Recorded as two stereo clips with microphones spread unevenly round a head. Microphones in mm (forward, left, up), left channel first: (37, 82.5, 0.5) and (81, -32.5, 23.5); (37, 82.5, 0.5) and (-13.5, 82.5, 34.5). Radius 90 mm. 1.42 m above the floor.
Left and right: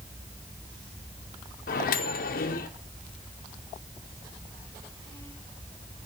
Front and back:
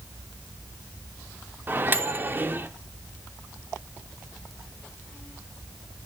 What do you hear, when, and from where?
1.7 s a microwave: 130° left, 0.6 m